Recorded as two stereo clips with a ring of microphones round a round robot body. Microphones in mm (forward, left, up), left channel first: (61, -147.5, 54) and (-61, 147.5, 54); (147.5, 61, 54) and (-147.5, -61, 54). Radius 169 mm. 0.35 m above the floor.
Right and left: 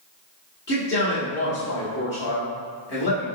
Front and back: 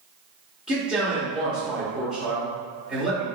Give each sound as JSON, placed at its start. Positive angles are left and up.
{"t": 0.7, "sound": "a man speaking", "azimuth_deg": -70, "distance_m": 1.3}